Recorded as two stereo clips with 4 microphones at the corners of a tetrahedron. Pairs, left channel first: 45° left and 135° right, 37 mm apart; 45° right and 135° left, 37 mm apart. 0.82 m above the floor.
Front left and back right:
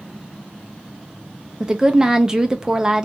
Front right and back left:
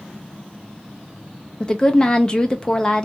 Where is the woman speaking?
85° right, 0.5 m.